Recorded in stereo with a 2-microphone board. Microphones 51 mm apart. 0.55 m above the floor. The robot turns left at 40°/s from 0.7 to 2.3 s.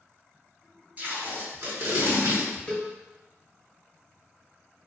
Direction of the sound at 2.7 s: 10° left (ahead or behind).